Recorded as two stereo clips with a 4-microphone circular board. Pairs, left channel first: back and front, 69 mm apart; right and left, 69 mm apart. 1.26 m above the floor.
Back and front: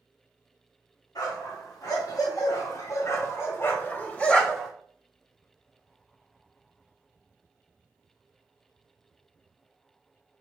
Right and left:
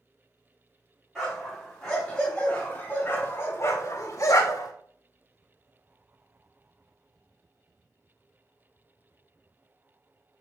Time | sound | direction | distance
1.1 | a dog barking | straight behind | 3 m